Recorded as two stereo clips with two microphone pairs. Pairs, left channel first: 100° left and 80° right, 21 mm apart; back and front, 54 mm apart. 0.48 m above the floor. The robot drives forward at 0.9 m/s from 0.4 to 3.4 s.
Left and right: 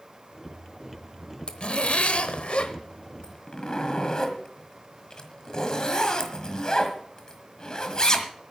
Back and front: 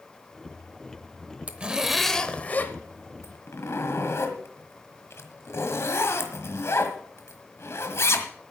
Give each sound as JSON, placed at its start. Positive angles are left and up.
{"t": 1.5, "sound": "a zipper", "azimuth_deg": 60, "distance_m": 1.0}